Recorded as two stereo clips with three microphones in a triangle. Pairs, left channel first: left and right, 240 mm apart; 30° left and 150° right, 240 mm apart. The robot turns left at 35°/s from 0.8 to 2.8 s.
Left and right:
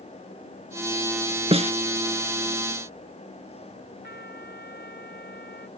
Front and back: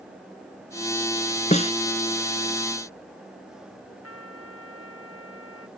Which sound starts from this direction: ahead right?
A snare drum, at 1.5 s.